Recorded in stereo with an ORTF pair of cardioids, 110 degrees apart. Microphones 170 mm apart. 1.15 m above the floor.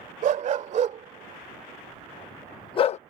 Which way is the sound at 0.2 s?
55° right.